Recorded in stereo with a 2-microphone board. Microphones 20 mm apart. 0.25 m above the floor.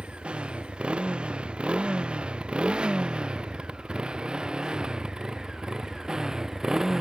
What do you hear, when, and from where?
0.0 s a motorcycle: 75° right (ahead or behind); by 7.0 s 30° right (ahead or behind)